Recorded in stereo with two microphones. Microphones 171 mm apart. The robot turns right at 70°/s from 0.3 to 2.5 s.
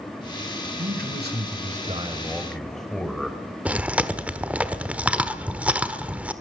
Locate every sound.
0.8 s a man speaking: 120° right, 2.5 m; by 3.4 s straight ahead, 2.5 m
3.6 s chewing: 10° right (ahead or behind), 1.2 m